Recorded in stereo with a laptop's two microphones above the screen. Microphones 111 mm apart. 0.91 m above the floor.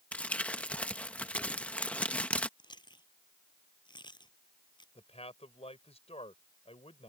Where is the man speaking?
70° left (ahead or behind).